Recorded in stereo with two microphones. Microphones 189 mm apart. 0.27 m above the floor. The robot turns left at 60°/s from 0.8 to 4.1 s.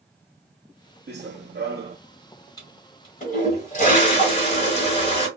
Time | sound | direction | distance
1.1 | running footsteps | 70° right | 0.6 m
2.6 | a toilet flushing | 150° left | 1.3 m